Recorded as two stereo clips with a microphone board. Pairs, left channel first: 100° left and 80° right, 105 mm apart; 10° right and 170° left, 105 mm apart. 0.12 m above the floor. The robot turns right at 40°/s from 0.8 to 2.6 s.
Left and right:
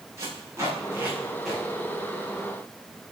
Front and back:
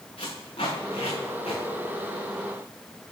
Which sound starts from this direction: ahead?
Tape being pulled, at 0.2 s.